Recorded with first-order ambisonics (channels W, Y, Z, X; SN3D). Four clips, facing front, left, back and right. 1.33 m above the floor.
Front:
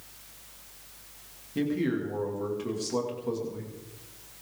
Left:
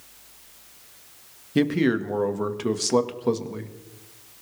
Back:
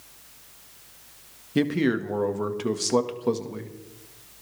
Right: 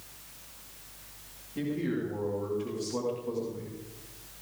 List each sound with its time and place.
1.6 s a man speaking: 125° left, 2.0 m